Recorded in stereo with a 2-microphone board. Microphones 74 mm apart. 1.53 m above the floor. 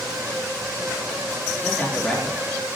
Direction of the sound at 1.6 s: 15° left (ahead or behind).